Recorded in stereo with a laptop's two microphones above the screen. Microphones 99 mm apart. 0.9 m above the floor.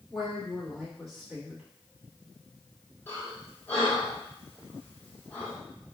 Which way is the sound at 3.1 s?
20° left (ahead or behind).